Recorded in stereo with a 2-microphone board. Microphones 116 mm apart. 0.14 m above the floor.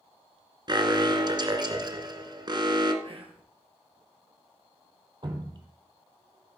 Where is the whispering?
55° right (ahead or behind), 3 m.